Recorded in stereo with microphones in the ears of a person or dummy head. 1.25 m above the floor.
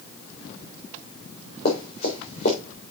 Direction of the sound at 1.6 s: 45° left (ahead or behind).